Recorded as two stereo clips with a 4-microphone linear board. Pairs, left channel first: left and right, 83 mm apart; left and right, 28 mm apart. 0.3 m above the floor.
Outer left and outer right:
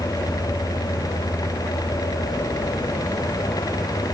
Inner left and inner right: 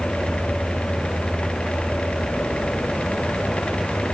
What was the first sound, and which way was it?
Only background noise.